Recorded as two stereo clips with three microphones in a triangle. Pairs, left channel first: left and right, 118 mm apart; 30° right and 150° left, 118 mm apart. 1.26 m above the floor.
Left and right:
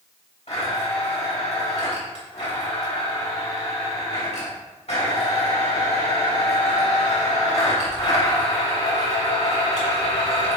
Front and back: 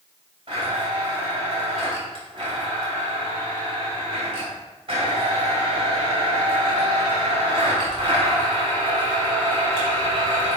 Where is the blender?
110° left, 3 m.